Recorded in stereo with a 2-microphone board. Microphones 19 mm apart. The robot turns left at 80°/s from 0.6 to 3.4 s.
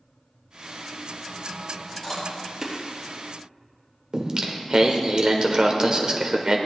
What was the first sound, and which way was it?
Chewing, 30° left (ahead or behind).